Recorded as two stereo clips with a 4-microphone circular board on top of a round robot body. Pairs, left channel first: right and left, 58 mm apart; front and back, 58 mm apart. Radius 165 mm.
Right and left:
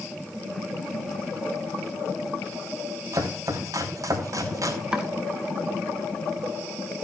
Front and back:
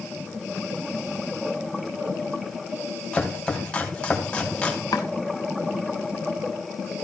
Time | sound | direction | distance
3.1 | chopping | 75° left | 3 m
4.9 | chopping | 15° left | 0.7 m